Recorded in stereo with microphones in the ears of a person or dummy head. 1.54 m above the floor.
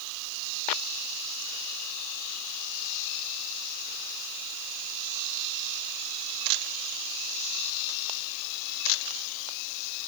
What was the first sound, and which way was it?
Only background noise.